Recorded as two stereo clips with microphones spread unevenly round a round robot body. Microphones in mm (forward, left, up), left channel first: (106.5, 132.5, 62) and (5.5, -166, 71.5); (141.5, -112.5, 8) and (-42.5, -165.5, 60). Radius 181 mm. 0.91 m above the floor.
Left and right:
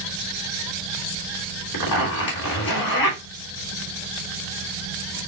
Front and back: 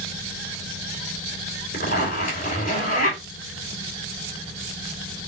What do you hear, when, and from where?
1.7 s a zipper: 70° left, 2.5 m